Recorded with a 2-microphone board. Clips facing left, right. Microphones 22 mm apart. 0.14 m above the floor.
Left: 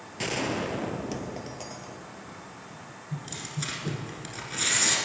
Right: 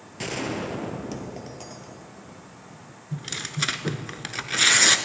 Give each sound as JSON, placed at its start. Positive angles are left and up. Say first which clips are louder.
{"t": 0.2, "sound": "a gunshot", "louder": "even", "side_deg": 5, "distance_m": 1.2}
{"t": 3.1, "sound": "tearing paper", "louder": "right 5 dB", "side_deg": -45, "distance_m": 0.9}